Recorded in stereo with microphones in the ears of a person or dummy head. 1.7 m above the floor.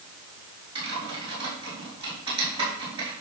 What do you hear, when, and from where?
0.8 s typing on a keyboard: 30° right (ahead or behind), 4.5 m